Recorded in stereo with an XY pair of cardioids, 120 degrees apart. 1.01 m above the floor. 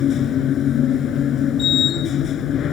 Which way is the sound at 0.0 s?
55° left.